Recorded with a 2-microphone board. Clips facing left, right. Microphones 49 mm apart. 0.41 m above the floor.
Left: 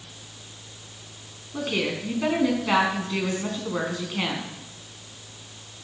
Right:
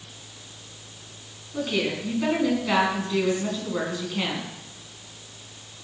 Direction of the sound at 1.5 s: 20° left (ahead or behind).